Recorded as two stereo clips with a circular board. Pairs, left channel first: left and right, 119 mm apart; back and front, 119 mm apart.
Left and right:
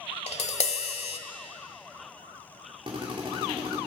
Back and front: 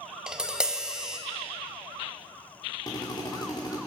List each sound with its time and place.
0.3 s tapping: 85° left, 1.0 m
2.9 s a drill: 130° right, 2.5 m